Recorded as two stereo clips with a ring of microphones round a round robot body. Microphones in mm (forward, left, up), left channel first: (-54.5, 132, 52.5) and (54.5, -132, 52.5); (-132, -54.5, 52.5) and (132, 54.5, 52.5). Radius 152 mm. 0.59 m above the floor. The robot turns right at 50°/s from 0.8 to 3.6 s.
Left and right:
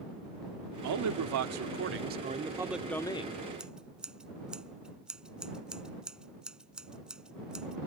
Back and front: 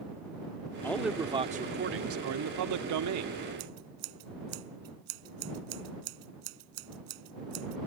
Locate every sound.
0.8 s a man speaking: 75° right; by 3.3 s 50° left
3.6 s scissors: 20° left